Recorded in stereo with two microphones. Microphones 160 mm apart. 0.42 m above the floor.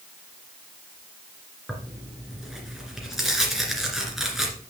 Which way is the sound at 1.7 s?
Centre (ahead or behind).